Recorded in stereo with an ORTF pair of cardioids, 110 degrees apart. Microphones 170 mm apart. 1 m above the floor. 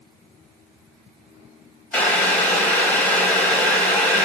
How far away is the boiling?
About 0.9 m.